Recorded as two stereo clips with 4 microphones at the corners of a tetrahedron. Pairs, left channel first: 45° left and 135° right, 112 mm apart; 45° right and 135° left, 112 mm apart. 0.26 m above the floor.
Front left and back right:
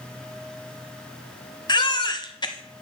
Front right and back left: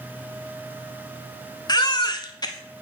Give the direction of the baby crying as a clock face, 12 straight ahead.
12 o'clock.